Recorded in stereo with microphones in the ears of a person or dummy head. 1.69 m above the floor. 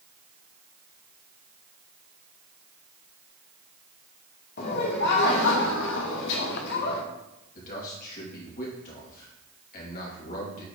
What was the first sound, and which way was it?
Laughter, 50° left (ahead or behind).